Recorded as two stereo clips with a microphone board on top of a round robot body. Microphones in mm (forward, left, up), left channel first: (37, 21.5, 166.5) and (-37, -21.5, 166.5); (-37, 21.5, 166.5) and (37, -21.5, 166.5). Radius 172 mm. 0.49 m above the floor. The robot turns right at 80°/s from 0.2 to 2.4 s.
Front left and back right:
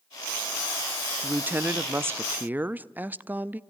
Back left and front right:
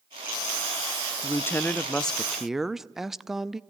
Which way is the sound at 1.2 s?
155° left.